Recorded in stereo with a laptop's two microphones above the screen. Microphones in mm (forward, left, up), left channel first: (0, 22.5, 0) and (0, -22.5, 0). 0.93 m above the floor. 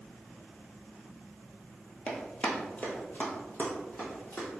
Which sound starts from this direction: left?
Running footsteps, at 2.1 s.